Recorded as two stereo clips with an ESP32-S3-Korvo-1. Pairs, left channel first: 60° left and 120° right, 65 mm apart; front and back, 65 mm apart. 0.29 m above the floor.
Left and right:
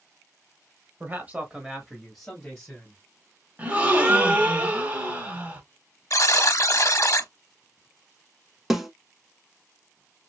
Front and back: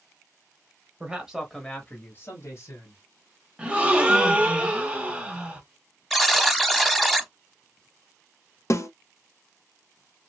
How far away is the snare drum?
About 0.9 m.